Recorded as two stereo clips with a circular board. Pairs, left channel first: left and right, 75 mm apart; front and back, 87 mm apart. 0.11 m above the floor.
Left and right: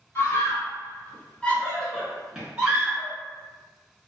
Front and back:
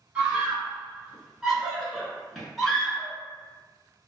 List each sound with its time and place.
0.1 s a scream: 110° left, 1.7 m; by 3.1 s 70° right, 1.4 m